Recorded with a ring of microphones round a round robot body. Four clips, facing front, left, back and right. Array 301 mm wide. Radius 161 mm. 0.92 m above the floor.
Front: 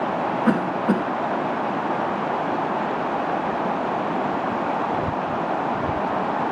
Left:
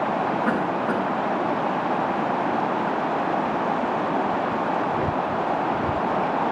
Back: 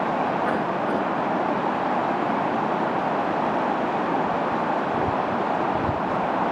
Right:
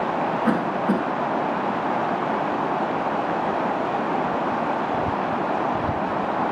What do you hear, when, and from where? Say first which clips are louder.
0.5 s a cough: right 1 dB, front 3 dB; 30° right, 6.5 m